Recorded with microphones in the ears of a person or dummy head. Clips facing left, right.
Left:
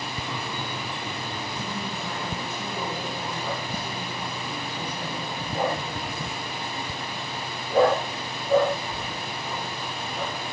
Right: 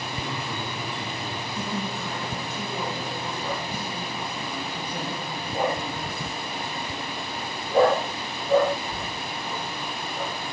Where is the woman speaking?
45° right (ahead or behind), 2.5 m.